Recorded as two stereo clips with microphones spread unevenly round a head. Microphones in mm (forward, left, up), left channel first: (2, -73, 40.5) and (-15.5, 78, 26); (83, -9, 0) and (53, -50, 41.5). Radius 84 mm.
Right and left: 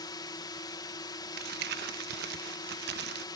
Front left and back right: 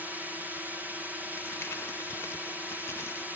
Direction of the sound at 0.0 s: 30° right.